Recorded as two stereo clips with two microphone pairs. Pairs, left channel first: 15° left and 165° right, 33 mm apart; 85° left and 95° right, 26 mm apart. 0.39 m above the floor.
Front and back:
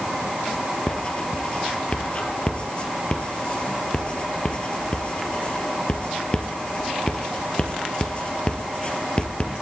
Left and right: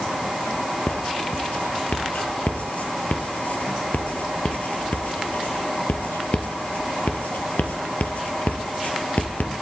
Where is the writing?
70° left, 2 m.